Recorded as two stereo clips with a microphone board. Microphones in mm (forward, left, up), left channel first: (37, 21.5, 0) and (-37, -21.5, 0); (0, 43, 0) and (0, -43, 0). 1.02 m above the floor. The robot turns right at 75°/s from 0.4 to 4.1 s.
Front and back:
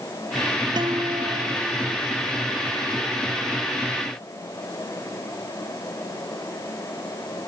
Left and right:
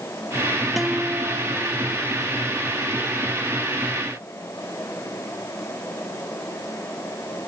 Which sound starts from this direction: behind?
A guitar, at 0.8 s.